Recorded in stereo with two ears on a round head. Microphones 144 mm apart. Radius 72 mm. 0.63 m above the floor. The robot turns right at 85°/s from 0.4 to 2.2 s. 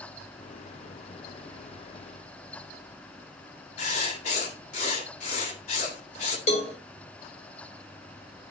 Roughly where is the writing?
Left.